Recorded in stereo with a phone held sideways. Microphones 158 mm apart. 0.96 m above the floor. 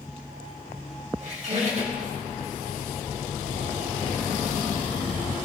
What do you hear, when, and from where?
1.2 s a squeak: 50° right (ahead or behind), 2.5 m